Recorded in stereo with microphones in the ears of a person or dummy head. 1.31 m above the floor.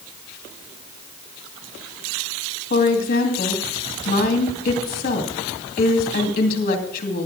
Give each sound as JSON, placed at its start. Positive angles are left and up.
{"t": 2.7, "sound": "a woman speaking", "side_deg": 50, "distance_m": 2.0}